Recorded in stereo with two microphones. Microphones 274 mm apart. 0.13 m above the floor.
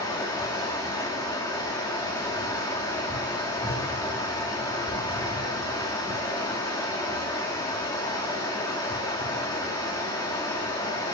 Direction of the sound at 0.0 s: 15° left (ahead or behind).